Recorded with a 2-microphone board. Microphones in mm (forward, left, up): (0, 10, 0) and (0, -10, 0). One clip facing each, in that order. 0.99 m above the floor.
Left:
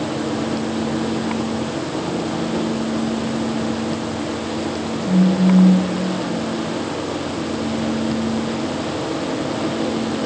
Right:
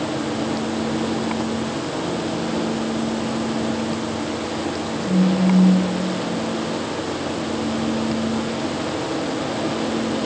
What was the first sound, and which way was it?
A phone buzzing, 60° right (ahead or behind).